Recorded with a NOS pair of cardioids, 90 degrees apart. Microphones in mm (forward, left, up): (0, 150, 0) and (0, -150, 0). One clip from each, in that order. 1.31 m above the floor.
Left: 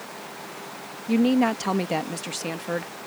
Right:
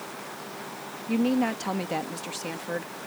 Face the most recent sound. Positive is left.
turn(degrees=30)